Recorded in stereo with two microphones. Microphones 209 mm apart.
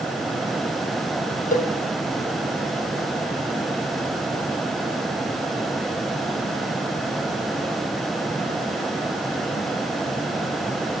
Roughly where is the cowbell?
Left.